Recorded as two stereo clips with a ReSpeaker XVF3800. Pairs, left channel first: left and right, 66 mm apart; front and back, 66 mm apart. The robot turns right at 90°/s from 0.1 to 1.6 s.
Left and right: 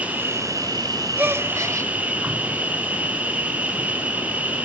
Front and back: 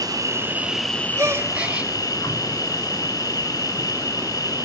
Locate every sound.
0.0 s an insect: 155° right, 1.4 m; by 4.7 s 20° right, 1.4 m
1.2 s a gasp: 150° right, 1.1 m; by 1.9 s 110° right, 1.1 m